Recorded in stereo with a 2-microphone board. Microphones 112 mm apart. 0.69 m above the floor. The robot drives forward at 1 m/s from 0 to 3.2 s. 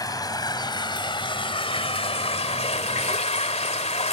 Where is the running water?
35° left (ahead or behind); by 4.1 s 75° left (ahead or behind).